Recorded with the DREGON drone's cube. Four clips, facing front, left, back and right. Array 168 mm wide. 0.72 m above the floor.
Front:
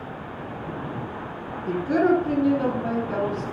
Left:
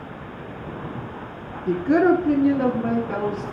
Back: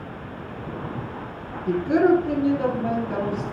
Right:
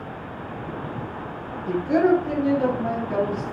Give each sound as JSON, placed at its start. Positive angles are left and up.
{"t": 1.7, "sound": "a woman speaking", "azimuth_deg": 105, "distance_m": 1.6}